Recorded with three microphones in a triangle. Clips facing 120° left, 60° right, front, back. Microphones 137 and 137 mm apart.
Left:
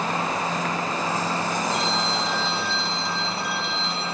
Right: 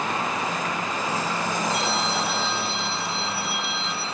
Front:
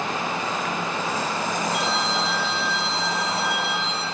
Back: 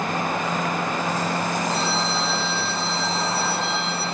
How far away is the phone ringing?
About 6.5 m.